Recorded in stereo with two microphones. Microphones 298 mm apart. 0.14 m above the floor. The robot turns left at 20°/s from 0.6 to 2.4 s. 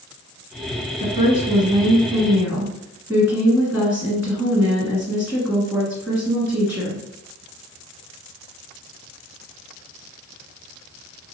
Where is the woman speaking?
25° right (ahead or behind), 1.7 m; by 7.0 s 5° right (ahead or behind), 1.7 m.